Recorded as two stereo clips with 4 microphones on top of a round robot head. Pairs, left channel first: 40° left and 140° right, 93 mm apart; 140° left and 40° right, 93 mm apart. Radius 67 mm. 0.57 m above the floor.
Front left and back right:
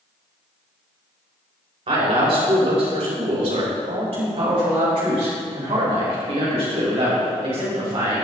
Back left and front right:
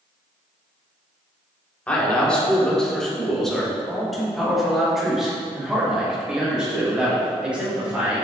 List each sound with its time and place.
1.9 s a man speaking: 145° right, 3 m; by 8.2 s 115° right, 6 m